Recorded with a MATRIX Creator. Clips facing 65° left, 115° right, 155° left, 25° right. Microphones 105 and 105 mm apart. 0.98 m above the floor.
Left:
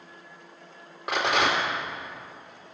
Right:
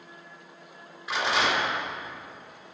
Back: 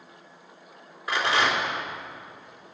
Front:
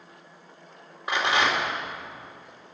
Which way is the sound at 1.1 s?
45° left.